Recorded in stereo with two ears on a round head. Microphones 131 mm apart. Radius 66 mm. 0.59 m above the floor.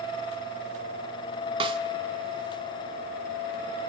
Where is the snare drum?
35° right (ahead or behind), 1.7 m.